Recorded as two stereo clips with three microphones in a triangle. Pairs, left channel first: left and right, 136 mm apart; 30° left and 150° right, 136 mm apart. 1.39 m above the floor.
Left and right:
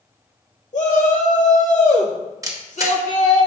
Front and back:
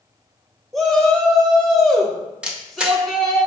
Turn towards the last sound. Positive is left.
turn(degrees=-75)